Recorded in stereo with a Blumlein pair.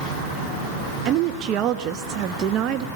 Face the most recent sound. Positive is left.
turn(degrees=-35)